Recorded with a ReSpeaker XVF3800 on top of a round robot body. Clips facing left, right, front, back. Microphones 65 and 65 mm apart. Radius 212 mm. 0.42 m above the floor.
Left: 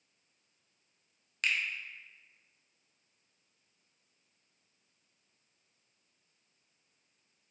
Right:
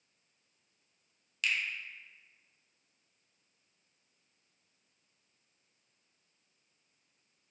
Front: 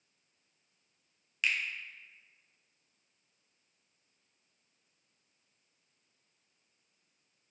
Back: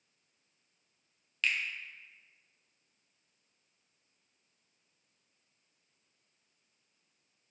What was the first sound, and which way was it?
A finger snap, 70° left.